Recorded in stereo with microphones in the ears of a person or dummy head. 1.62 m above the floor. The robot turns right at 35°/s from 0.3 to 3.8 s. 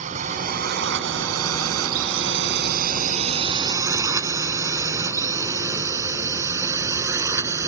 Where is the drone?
40° right (ahead or behind); by 7.7 s 15° right (ahead or behind).